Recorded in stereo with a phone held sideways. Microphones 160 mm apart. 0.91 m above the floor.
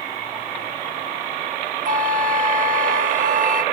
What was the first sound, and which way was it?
A flute, 55° right (ahead or behind).